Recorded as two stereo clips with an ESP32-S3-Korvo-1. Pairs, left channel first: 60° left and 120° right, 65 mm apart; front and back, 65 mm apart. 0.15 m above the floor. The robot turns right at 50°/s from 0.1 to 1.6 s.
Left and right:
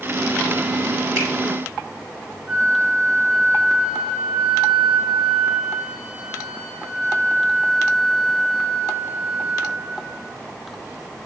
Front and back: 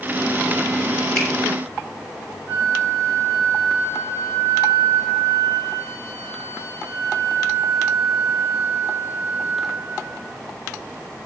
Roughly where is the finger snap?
Right.